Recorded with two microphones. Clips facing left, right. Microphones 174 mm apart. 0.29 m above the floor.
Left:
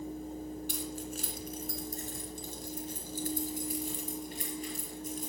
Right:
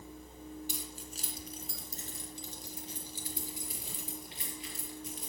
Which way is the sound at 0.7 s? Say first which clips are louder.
Left 7 dB; 60° left (ahead or behind).